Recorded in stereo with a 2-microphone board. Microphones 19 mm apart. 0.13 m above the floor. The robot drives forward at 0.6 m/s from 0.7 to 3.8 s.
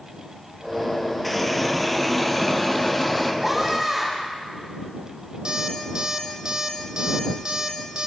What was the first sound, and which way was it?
A running tap, 5° right (ahead or behind).